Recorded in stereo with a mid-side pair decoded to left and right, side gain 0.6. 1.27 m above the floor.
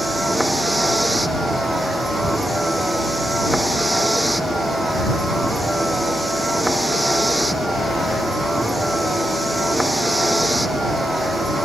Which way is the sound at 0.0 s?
5° right.